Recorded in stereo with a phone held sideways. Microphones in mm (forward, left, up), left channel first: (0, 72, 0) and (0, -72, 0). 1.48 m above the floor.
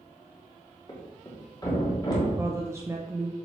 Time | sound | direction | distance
0.9 | a thud | 30° left (ahead or behind) | 1.5 m
2.4 | a woman speaking | 20° right (ahead or behind) | 0.5 m